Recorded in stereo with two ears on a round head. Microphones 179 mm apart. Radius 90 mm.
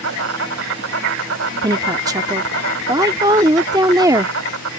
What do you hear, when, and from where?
0.0 s an insect: 80° right
1.6 s a woman speaking: 20° right (ahead or behind)